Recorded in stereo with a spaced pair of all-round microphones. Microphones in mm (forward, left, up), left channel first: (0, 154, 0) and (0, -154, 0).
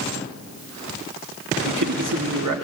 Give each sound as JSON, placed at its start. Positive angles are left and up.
{"t": 1.6, "sound": "a man speaking", "side_deg": -75, "distance_m": 2.0}